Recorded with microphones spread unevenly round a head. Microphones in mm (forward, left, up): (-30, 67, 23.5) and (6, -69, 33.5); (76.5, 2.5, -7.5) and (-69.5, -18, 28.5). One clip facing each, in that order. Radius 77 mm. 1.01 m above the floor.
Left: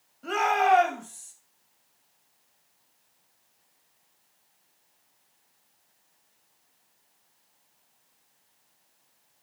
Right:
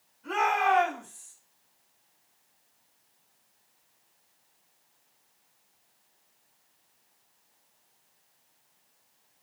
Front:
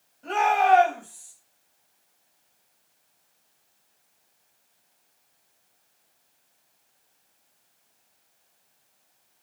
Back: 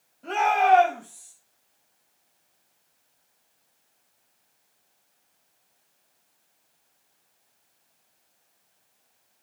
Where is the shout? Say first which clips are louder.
Left 3 dB, even; 105° left, 6.5 m.